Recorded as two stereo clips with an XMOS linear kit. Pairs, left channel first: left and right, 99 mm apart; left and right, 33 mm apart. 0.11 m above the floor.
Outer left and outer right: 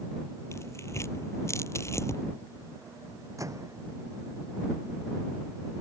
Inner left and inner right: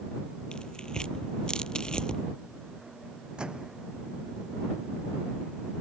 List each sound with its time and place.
0.5 s tearing paper: 25° left (ahead or behind)
3.4 s a microwave: 30° right (ahead or behind)